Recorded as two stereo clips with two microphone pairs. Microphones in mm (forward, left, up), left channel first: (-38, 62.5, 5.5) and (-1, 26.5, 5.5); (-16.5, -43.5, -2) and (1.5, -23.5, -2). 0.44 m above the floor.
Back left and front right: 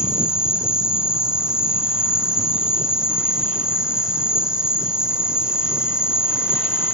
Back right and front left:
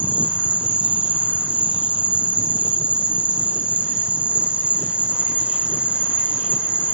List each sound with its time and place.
0.0 s an insect: 30° left, 0.8 m